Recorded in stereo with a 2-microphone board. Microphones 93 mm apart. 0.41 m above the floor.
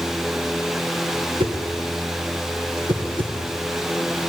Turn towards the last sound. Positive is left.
turn(degrees=-65)  # may be behind; listen again after turning